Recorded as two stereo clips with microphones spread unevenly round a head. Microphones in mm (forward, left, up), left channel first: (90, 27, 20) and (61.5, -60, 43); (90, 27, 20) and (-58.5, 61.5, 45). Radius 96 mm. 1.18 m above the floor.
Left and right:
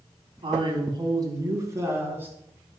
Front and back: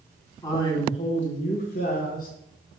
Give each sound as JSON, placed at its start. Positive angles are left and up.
{"t": 0.4, "sound": "a man speaking", "azimuth_deg": -80, "distance_m": 2.5}